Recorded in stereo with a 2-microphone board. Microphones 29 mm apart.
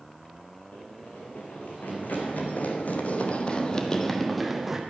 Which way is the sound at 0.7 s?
75° left (ahead or behind).